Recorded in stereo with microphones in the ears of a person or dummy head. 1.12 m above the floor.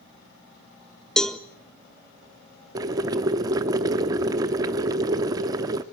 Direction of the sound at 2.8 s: 20° right (ahead or behind).